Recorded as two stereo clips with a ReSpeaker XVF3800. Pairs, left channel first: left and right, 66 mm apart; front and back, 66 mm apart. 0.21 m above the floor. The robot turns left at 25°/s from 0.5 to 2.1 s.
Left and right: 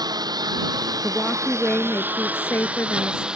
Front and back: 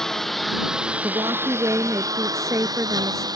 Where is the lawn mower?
85° right; by 3.4 s 165° right.